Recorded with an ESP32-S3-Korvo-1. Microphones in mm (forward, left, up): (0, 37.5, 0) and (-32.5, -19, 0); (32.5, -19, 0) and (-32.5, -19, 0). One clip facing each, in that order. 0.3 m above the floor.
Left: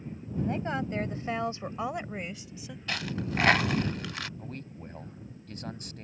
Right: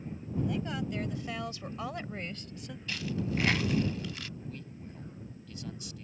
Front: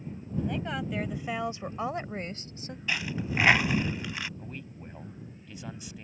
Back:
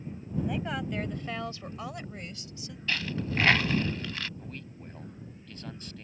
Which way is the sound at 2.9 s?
75° left.